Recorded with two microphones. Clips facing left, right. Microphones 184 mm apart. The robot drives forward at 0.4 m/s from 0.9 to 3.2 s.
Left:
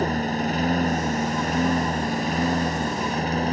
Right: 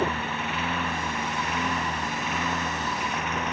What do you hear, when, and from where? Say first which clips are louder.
0.0 s a lawn mower: left 5 dB; 40° left (ahead or behind); by 3.5 s 35° left (ahead or behind)